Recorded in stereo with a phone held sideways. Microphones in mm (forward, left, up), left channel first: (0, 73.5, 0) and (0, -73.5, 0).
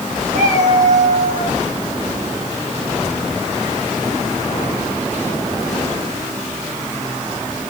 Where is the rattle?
No rattle in this recording.